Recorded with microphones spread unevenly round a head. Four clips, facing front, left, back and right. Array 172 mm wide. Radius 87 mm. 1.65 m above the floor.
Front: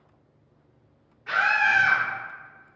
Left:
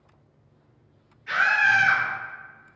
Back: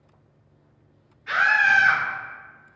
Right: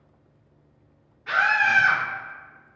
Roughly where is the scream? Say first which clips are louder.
Even, back 3 dB; ahead right.